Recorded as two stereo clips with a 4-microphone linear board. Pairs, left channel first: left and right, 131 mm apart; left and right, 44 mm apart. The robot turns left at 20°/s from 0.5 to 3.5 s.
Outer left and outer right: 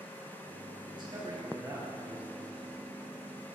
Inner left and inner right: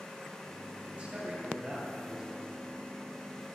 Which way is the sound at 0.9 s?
140° right.